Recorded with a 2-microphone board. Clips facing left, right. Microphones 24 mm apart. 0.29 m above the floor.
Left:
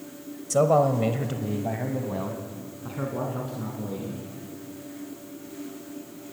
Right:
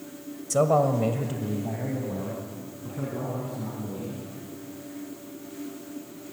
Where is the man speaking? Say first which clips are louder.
Left 1 dB; 5° left (ahead or behind), 1.0 m; by 4.2 s 50° left (ahead or behind), 3.5 m.